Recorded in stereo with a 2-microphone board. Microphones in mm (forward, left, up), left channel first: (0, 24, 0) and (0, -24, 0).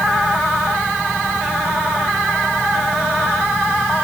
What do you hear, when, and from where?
Only background noise.